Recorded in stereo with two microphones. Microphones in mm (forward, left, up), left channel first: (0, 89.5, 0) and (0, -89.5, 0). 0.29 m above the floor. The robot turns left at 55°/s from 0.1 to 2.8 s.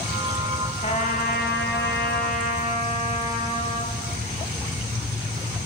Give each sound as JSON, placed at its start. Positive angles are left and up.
{"t": 0.8, "sound": "a trumpet", "azimuth_deg": 150, "distance_m": 1.6}